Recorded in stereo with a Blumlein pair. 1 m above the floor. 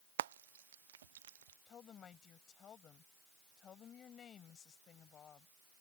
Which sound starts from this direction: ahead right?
Frying, at 0.2 s.